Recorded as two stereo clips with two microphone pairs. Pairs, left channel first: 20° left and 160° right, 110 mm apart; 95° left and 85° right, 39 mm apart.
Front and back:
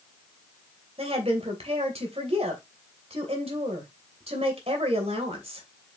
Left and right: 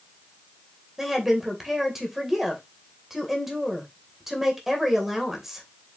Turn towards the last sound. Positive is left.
turn(degrees=-170)